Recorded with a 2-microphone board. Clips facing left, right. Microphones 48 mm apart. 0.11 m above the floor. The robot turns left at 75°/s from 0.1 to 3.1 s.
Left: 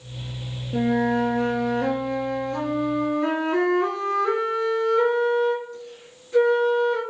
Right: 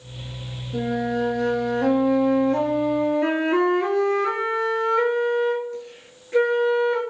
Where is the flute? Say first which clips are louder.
Left 3 dB; 85° left, 0.8 m; by 7.0 s 90° right, 0.8 m.